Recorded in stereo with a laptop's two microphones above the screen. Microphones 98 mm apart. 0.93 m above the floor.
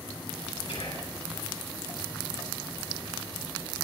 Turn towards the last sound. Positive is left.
turn(degrees=80)